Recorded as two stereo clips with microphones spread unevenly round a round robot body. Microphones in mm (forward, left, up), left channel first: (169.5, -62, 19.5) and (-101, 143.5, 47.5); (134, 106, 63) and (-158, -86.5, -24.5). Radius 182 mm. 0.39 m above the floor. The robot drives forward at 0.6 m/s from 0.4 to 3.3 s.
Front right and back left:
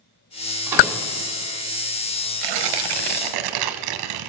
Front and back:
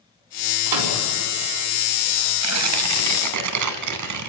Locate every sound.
0.7 s a microwave: 130° right, 3 m; by 1.0 s 135° right, 3 m
2.4 s tearing paper: 170° left, 0.8 m; by 4.3 s 175° left, 1.3 m